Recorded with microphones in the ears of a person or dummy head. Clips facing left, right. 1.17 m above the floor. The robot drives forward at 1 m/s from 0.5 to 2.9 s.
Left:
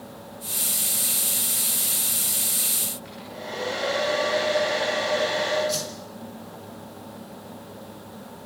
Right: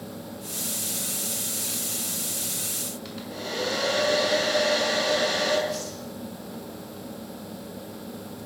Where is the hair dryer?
40° right (ahead or behind), 7.5 m.